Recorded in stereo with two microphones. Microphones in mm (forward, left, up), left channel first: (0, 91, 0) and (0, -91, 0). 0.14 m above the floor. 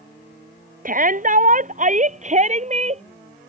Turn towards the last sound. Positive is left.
turn(degrees=-35)  # may be behind; listen again after turning